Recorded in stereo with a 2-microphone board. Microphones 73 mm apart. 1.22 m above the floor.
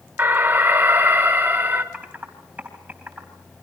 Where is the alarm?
30° right (ahead or behind), 1.7 m.